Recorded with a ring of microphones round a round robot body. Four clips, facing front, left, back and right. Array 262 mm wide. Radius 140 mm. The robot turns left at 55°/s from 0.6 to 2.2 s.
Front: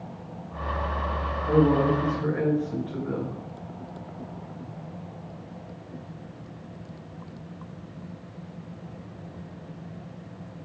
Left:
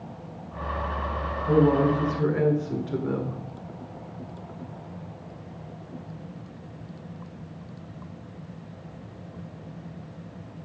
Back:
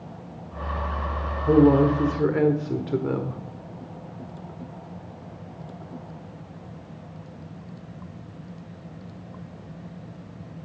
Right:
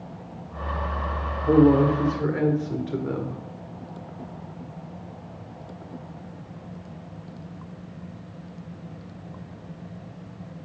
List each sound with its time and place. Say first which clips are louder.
1.5 s a woman speaking: right 3 dB, back 4 dB; 130° right, 1.7 m; by 3.4 s 175° right, 1.7 m